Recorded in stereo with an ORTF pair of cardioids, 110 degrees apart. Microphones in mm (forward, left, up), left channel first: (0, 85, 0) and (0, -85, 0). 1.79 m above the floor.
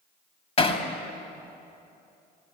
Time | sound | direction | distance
0.6 | hammering | 40° left | 3 m